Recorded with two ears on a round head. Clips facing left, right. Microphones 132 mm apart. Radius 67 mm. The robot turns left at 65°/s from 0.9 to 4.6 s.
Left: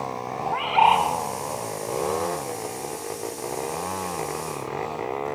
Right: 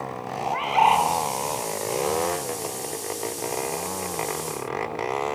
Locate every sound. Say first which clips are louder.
0.4 s a bird: left 1 dB; 15° right (ahead or behind), 2 m; by 1.1 s 30° right (ahead or behind), 2 m